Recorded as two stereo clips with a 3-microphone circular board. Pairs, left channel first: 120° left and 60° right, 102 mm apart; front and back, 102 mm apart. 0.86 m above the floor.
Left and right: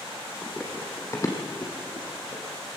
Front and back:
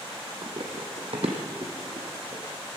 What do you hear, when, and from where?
0.4 s running footsteps: 155° right, 2 m; by 2.4 s 145° left, 3 m